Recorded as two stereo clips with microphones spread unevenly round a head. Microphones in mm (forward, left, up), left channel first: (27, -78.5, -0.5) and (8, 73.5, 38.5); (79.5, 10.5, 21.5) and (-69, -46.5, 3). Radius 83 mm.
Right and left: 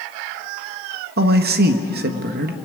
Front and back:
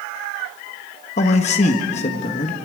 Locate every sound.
1.2 s a man speaking: 70° left, 1.7 m